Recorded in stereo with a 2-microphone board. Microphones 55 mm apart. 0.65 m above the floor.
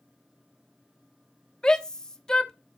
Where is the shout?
15° left (ahead or behind), 0.9 m.